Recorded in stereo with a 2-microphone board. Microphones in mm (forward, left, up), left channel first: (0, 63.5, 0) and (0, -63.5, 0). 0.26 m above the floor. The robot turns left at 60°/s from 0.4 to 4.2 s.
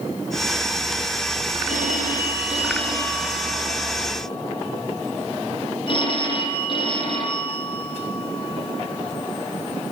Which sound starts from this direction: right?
A phone ringing, at 1.7 s.